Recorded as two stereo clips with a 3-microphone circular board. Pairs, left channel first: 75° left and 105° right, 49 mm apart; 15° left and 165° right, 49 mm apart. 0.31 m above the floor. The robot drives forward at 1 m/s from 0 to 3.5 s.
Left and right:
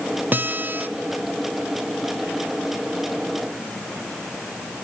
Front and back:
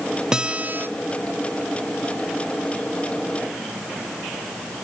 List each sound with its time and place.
0.3 s a guitar: 100° right, 0.9 m; by 0.9 s 140° right, 1.1 m